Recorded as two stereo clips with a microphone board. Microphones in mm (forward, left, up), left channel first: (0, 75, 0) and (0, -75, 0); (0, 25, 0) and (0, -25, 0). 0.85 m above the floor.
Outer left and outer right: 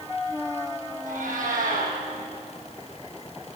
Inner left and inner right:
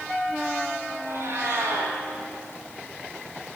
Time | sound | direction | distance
1.0 | a cat meowing | 60° right (ahead or behind) | 7 m